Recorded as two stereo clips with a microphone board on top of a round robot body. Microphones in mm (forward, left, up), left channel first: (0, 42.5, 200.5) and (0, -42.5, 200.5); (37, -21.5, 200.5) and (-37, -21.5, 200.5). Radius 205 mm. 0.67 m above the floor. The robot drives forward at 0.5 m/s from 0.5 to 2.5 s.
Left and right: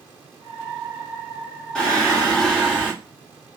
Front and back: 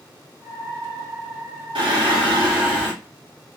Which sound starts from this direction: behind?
Singing, at 1.8 s.